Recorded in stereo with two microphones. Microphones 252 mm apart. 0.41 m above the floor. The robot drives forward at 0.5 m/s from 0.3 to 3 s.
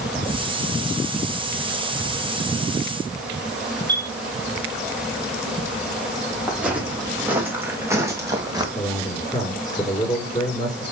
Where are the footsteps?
5° right (ahead or behind), 6 m; by 8.7 s 15° right (ahead or behind), 3.5 m.